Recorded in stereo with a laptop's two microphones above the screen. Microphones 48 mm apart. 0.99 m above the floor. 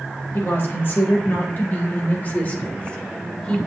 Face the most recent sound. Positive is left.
turn(degrees=20)  # may be behind; listen again after turning